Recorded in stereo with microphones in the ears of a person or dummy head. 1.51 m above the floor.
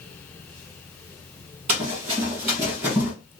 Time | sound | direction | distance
1.7 | running footsteps | 30° right (ahead or behind) | 1.6 m